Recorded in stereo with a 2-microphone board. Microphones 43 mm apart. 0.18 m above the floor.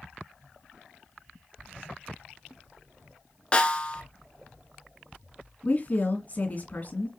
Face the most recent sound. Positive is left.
turn(degrees=40)  # may be behind; listen again after turning